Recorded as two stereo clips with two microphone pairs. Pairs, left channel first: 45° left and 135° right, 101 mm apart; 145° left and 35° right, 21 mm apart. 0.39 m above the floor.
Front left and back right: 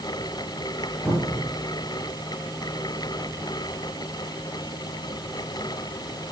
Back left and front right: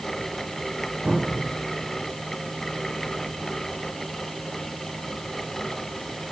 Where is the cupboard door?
25° right, 9 m.